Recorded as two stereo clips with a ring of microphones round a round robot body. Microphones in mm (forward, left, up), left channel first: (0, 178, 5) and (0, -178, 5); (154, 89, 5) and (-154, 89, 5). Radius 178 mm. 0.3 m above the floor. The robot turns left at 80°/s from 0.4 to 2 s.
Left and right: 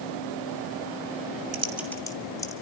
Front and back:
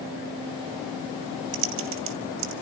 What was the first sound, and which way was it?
Typing on a keyboard, 155° right.